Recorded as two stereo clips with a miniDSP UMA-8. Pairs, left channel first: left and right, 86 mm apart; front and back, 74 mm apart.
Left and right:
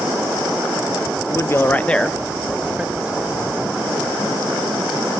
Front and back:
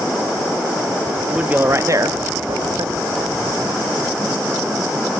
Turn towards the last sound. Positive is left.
turn(degrees=-170)